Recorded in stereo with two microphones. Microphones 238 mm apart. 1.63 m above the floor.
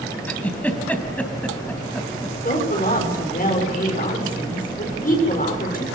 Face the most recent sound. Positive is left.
turn(degrees=35)  # may be behind; listen again after turning